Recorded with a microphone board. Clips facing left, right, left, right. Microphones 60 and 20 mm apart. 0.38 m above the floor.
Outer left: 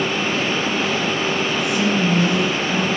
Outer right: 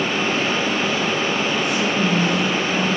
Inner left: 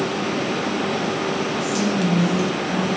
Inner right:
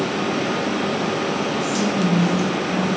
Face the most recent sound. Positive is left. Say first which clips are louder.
# outer left 1 dB, even
turn(degrees=15)  # may be behind; listen again after turning